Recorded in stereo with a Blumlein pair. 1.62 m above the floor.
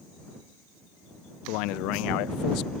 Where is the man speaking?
40° left.